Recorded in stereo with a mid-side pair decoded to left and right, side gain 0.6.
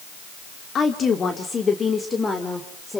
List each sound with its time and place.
0.8 s a woman speaking: 40° left, 2.5 m; by 3.0 s 15° left, 3.5 m